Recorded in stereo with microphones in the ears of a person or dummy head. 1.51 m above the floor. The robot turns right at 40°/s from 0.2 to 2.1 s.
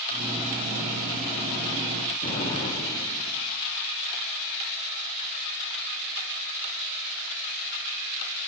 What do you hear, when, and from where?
2.2 s an explosion: 40° left (ahead or behind), 9 m